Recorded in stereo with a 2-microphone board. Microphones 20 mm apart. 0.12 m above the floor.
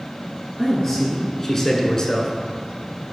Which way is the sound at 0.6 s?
Centre (ahead or behind).